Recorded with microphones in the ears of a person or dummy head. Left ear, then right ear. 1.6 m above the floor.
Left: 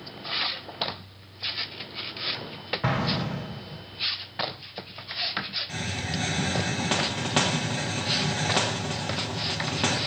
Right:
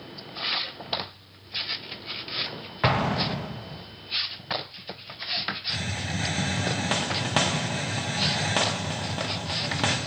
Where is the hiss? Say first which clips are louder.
Right 1 dB; 10° right (ahead or behind), 1.5 m.